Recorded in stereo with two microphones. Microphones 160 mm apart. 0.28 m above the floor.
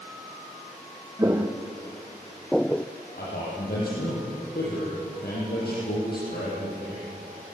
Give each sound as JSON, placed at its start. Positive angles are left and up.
{"t": 1.2, "sound": "footsteps", "side_deg": -20, "distance_m": 1.7}
{"t": 3.1, "sound": "a man speaking", "side_deg": 85, "distance_m": 9.0}